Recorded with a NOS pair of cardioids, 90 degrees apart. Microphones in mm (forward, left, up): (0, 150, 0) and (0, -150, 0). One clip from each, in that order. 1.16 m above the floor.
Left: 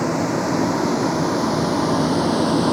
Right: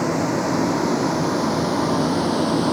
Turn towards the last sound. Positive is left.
turn(degrees=20)